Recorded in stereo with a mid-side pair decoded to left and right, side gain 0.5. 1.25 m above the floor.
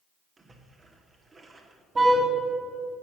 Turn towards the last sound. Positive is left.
turn(degrees=-35)